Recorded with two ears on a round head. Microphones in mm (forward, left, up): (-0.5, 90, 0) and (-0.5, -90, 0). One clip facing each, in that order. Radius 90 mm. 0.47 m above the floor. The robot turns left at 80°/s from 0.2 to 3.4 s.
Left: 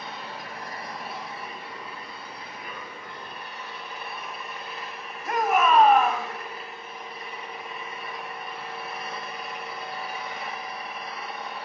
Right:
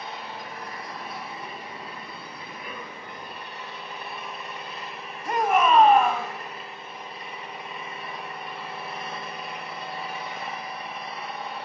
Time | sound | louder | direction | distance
0.0 | an engine running | right 1 dB | 75° left | 6.5 m
5.2 | a shout | right 1 dB | centre (ahead or behind) | 2.5 m